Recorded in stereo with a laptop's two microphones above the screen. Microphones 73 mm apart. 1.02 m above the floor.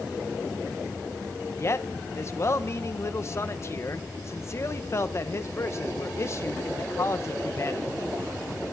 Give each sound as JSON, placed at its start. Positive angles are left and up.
{"t": 1.6, "sound": "a man speaking", "side_deg": 40, "distance_m": 0.7}